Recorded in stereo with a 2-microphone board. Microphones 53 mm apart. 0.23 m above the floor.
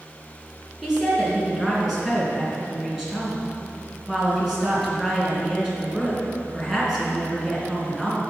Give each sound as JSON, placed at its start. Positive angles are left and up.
{"t": 0.8, "sound": "a woman speaking", "side_deg": -5, "distance_m": 3.0}